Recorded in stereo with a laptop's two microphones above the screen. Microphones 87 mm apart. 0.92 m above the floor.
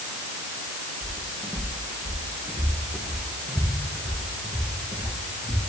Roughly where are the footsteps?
Right.